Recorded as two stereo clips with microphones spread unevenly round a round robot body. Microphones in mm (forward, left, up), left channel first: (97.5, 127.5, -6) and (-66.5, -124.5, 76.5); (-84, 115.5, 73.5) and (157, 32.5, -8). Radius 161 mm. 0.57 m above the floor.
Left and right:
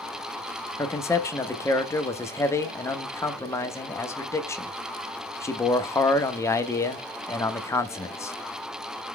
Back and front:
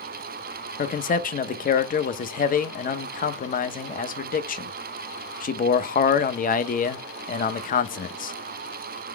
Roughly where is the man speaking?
Left.